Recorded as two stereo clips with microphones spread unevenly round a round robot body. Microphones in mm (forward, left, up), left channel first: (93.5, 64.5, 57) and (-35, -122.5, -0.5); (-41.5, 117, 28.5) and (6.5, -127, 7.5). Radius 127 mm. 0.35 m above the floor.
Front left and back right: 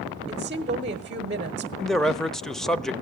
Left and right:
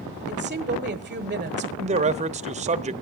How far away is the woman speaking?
About 1.1 m.